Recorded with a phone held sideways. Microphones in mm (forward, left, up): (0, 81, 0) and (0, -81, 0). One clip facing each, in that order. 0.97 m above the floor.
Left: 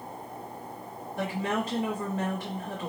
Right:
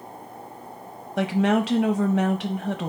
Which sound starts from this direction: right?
A woman speaking, at 1.2 s.